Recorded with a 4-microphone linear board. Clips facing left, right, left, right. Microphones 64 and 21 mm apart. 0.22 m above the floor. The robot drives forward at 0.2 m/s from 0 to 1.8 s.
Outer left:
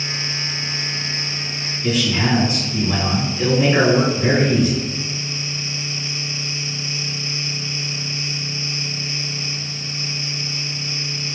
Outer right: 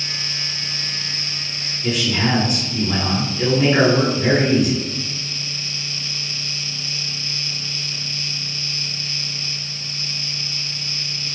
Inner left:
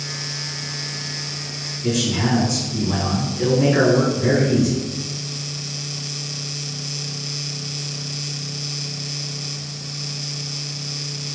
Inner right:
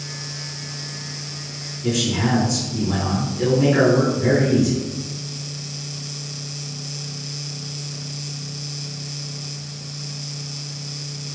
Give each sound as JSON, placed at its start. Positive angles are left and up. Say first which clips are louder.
{"t": 1.8, "sound": "a man speaking", "louder": "outer left 1 dB, even", "side_deg": -5, "distance_m": 1.7}